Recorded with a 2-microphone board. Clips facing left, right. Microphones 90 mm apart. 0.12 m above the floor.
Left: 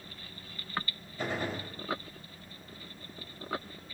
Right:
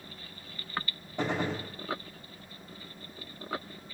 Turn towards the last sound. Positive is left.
turn(degrees=-80)